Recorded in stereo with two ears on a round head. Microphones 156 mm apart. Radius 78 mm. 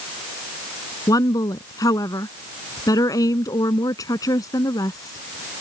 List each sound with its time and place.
1.1 s a woman speaking: 20° left (ahead or behind)